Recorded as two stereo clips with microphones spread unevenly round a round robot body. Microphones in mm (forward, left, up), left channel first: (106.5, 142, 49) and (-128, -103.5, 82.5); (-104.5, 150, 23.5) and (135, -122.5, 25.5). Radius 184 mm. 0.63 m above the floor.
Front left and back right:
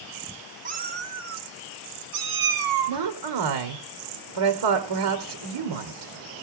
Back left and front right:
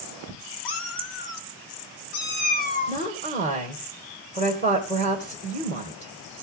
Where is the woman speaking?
160° right, 2.5 m.